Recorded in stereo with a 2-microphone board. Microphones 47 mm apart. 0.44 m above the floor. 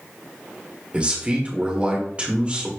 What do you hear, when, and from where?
0.9 s a man speaking: 25° right (ahead or behind), 1.3 m